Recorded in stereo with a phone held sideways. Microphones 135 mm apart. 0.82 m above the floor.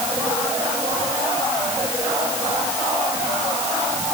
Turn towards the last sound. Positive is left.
No sound to turn to.